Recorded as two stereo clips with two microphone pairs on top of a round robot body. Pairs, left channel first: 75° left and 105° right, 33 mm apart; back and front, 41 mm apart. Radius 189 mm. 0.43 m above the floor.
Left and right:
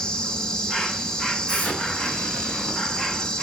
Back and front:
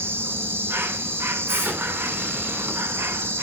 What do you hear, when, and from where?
0.0 s an insect: straight ahead, 1.5 m
1.5 s an explosion: 30° left, 2.5 m